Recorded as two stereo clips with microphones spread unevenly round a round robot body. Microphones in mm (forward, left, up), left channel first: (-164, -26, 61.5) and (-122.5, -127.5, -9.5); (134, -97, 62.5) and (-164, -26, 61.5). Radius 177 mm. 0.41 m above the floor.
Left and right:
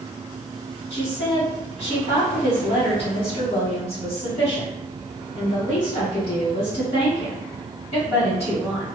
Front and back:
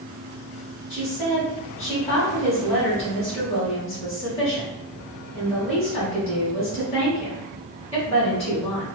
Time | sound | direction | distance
0.9 | a woman speaking | 50° left | 1.3 m